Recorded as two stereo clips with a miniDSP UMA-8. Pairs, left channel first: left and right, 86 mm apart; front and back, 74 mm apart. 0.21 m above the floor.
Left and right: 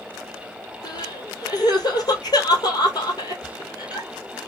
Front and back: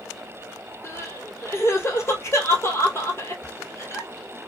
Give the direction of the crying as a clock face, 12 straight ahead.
10 o'clock.